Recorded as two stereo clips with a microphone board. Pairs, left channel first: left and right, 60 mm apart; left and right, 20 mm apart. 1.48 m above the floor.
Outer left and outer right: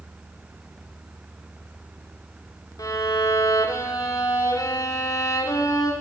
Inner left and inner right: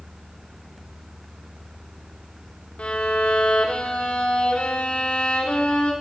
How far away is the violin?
About 5 m.